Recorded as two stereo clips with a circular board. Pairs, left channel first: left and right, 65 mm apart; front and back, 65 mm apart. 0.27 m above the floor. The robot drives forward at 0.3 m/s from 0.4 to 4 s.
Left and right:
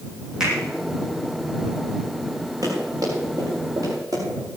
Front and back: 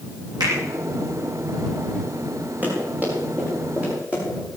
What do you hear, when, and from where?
0.4 s a finger snap: 170° right, 9.5 m
2.6 s running footsteps: 115° right, 9.5 m; by 4.2 s 110° right, 10.5 m